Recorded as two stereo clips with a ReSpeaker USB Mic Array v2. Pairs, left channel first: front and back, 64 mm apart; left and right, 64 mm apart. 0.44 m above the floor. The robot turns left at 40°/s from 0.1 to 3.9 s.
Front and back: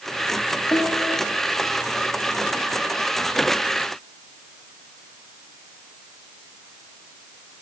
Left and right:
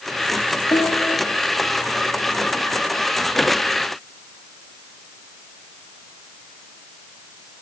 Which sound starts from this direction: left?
A piano, at 0.7 s.